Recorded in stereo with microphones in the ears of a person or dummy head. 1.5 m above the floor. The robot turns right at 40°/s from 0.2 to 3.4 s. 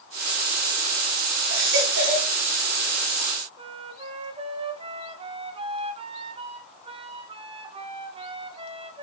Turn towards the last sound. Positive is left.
turn(degrees=-30)  # may be behind; listen again after turning